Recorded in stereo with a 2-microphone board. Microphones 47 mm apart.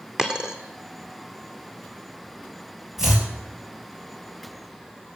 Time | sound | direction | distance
0.2 | a dropped coin | 10° right (ahead or behind) | 1.4 m
3.0 | chopping | 10° right (ahead or behind) | 3.5 m